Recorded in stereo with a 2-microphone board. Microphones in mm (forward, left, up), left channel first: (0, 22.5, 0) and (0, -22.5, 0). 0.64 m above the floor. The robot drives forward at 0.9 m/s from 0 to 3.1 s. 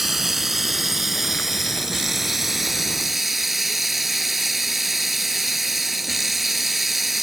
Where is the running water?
5° right (ahead or behind).